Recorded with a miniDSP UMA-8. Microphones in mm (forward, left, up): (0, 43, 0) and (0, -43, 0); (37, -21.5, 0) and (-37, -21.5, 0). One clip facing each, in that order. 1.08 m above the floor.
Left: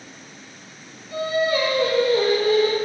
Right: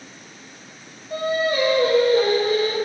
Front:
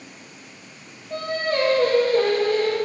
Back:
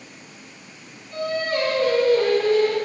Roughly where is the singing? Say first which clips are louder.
Even, even; ahead right.